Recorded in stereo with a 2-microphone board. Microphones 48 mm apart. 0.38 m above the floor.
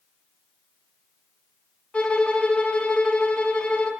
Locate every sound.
1.9 s a violin: 25° left (ahead or behind), 1.1 m